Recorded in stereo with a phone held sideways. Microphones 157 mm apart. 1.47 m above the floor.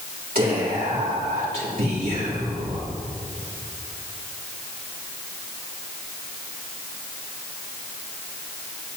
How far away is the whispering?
About 3 m.